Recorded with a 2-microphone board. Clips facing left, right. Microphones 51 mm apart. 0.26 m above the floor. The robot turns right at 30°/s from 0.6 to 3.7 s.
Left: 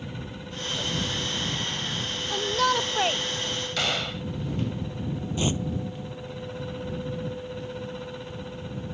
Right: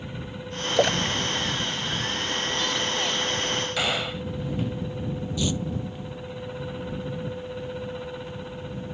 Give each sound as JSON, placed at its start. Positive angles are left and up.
{"t": 0.8, "sound": "a splash", "side_deg": -75}
{"t": 2.3, "sound": "a shout", "side_deg": 65}
{"t": 3.8, "sound": "a gunshot", "side_deg": -10}
{"t": 5.4, "sound": "tearing paper", "side_deg": 35}